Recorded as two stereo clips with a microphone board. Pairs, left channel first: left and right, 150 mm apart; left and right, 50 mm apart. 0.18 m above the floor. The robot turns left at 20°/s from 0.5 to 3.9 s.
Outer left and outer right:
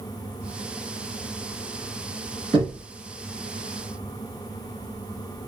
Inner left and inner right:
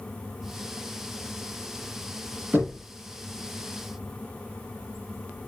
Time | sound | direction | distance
2.5 | knocking | 35° right (ahead or behind) | 1.9 m